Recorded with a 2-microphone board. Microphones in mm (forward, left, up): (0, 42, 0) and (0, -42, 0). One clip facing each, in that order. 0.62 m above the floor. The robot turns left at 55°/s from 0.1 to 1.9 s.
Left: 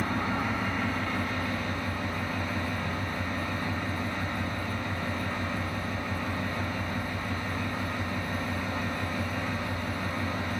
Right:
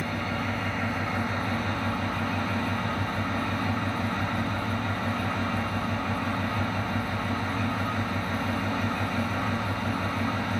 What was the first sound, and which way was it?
An engine running, 40° left.